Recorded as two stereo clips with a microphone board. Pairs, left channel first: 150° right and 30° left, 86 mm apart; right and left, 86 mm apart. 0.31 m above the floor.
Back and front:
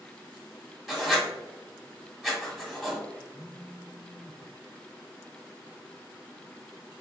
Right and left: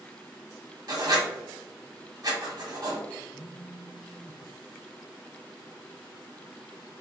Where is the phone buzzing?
40° right, 0.6 m.